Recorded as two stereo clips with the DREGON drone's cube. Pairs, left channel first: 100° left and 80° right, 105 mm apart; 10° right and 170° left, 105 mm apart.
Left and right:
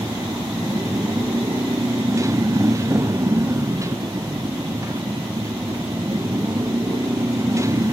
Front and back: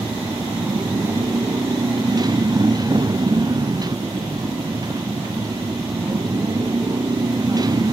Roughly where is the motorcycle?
Behind right.